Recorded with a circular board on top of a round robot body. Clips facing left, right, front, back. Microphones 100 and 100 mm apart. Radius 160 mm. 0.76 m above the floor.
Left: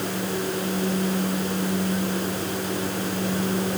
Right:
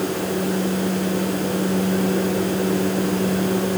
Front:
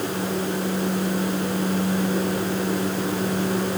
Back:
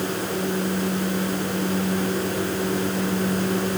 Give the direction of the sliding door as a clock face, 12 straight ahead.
No sliding door in this recording.